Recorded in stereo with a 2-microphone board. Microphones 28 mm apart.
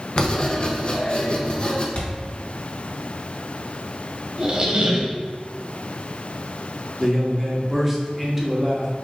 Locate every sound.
0.2 s writing: 45° left (ahead or behind), 0.6 m
1.9 s a thud: 65° left (ahead or behind), 1.8 m
4.4 s a squeak: 40° right (ahead or behind), 0.9 m
7.0 s a man speaking: 5° right (ahead or behind), 1.0 m